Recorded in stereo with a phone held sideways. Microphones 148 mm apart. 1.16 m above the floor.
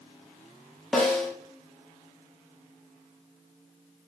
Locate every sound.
0.9 s a snare drum: 5° left (ahead or behind), 0.8 m